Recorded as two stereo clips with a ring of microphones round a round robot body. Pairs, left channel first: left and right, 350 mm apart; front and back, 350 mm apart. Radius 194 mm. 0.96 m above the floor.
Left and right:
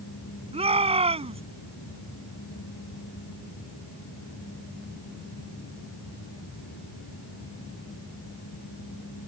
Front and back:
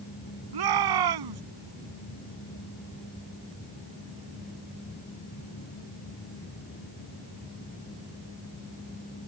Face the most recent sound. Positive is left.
turn(degrees=-165)